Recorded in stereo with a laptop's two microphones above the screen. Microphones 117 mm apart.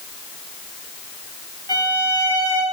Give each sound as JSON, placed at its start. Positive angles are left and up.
{"t": 1.7, "sound": "a violin", "side_deg": 35, "distance_m": 2.5}